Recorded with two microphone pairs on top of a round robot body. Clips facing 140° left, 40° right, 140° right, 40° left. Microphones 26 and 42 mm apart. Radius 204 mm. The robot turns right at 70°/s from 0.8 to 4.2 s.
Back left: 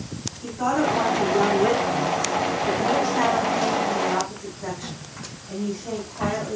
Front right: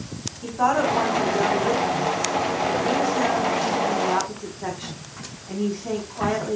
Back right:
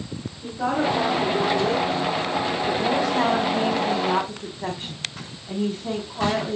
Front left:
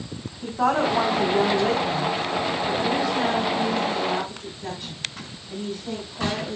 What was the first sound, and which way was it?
A woman speaking, 20° left.